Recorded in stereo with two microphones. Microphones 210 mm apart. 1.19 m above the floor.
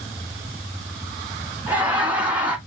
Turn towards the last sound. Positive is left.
turn(degrees=-20)  # may be behind; listen again after turning